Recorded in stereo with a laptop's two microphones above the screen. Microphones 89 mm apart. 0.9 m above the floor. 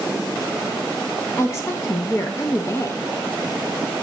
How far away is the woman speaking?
About 0.6 m.